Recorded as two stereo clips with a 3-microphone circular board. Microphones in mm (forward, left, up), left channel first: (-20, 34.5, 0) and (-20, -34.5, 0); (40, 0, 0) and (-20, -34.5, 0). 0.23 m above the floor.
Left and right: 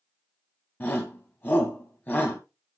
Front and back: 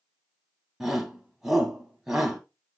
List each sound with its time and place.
0.8 s a shout: 130° left, 1.6 m